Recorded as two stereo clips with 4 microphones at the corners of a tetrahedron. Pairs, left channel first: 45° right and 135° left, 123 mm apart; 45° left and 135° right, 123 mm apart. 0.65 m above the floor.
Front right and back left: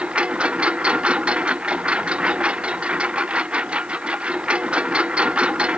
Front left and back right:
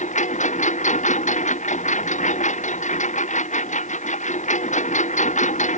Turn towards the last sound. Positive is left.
turn(degrees=55)